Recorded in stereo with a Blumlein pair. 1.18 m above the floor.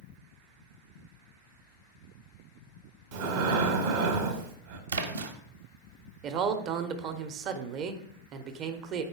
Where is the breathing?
50° right, 0.8 m.